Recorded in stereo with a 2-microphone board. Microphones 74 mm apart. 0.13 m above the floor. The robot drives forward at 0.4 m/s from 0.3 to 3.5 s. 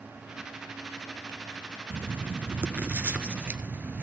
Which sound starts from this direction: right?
Writing, at 1.9 s.